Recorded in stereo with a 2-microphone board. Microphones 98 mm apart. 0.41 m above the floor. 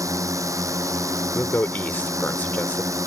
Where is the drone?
30° right (ahead or behind).